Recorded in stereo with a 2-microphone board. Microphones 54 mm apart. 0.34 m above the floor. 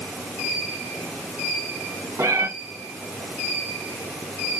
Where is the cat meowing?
80° right, 4 m.